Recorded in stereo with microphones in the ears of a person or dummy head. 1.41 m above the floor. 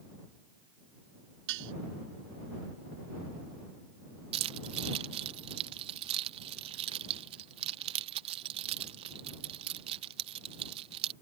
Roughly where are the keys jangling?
Right.